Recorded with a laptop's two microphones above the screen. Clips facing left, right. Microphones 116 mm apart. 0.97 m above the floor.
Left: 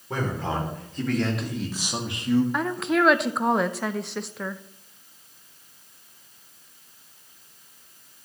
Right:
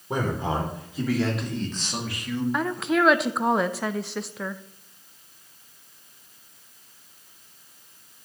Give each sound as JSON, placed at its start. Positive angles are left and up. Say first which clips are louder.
{"t": 0.1, "sound": "a man speaking", "louder": "right 2 dB", "side_deg": -20, "distance_m": 3.0}
{"t": 2.5, "sound": "a woman speaking", "louder": "even", "side_deg": 0, "distance_m": 0.5}